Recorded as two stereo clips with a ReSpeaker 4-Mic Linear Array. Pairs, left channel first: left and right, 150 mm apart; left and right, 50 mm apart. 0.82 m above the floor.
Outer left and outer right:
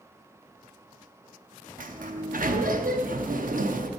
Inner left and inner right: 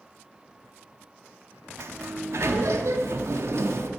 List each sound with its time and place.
1.8 s a sliding door: 65° right (ahead or behind), 0.8 m